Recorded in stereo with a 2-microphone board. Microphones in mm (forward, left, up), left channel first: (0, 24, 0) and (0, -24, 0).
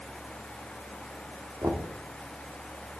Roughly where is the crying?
I don't hear crying.